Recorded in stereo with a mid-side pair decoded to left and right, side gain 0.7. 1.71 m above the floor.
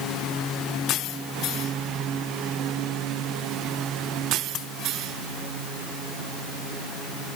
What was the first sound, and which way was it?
Only background noise.